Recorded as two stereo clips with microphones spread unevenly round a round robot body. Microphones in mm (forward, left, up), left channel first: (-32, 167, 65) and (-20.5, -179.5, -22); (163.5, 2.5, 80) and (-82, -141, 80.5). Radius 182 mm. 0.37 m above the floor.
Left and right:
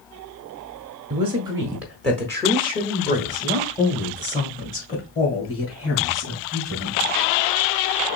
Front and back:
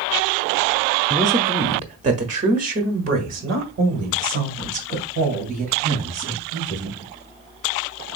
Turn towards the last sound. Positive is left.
turn(degrees=145)